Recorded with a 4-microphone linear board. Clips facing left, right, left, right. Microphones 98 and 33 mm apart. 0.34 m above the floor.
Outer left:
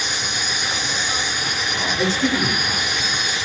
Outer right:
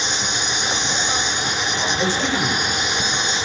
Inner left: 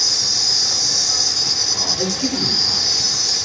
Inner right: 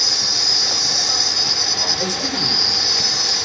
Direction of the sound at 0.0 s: 25° right (ahead or behind).